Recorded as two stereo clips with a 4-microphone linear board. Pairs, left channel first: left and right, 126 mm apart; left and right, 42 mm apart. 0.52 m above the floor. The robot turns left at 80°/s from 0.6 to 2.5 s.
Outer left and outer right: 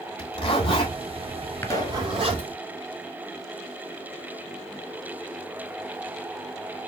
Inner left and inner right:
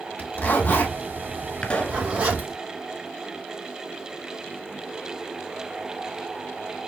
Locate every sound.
0.2 s a zipper: 50° left (ahead or behind), 2 m; by 2.5 s 55° right (ahead or behind), 2 m
1.6 s a pop: 165° left, 1.3 m; by 2.0 s 130° left, 1.3 m